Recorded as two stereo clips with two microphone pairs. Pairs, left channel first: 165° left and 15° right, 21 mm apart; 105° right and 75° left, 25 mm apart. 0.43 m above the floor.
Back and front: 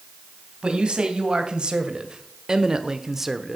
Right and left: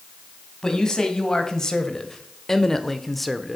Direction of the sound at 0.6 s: 50° right.